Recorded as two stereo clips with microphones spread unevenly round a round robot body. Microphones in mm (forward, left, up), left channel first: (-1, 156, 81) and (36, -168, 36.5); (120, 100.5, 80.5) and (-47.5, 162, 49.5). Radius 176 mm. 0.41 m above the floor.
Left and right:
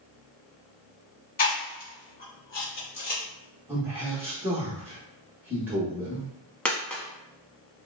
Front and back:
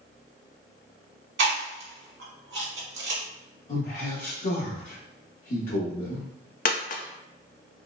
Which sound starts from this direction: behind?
Chewing, at 1.4 s.